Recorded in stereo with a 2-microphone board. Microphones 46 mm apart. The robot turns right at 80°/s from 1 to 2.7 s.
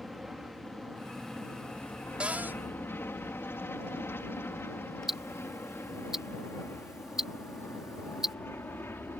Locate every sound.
0.0 s an aircraft: 10° right (ahead or behind); by 9.2 s 60° left (ahead or behind)
2.2 s a cupboard door: 155° right; by 2.6 s 120° right
5.1 s ticking: 10° right (ahead or behind)